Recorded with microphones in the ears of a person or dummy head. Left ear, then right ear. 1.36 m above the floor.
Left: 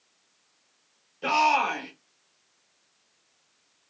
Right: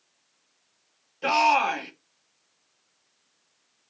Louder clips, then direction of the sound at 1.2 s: Right 1 dB; 20° right (ahead or behind).